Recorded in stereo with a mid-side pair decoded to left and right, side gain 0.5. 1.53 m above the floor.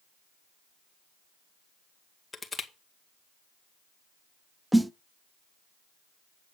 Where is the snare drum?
5° right, 0.6 m.